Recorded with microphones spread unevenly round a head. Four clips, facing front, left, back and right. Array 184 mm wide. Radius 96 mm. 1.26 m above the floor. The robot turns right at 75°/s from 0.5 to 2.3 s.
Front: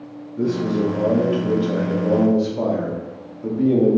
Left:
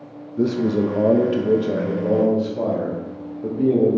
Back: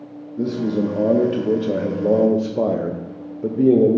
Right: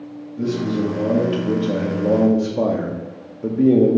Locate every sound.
0.4 s a man speaking: 70° left, 0.6 m; by 4.0 s 155° right, 0.6 m